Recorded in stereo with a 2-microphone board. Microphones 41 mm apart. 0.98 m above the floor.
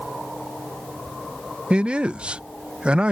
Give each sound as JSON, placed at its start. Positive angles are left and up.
{"t": 1.7, "sound": "a man speaking", "side_deg": -25}